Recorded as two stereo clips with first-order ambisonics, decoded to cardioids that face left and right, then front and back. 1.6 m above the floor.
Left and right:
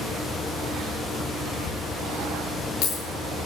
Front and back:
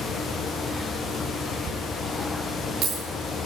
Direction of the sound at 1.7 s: 130° left.